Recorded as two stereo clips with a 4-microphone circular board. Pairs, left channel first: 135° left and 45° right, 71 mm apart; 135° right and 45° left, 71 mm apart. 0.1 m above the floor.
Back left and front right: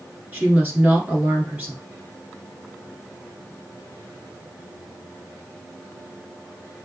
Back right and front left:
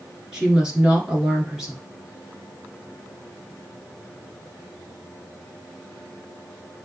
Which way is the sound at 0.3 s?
20° right.